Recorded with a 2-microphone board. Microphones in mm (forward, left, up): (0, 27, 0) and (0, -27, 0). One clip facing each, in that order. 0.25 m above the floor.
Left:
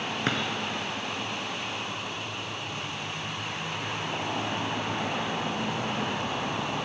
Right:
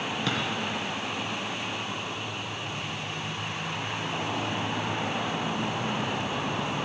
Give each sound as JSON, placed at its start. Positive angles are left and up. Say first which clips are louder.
{"t": 0.3, "sound": "a drawer", "louder": "left 2 dB", "side_deg": 40, "distance_m": 2.0}